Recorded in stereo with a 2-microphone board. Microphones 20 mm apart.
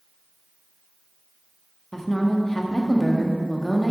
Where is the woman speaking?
20° left (ahead or behind), 0.9 m.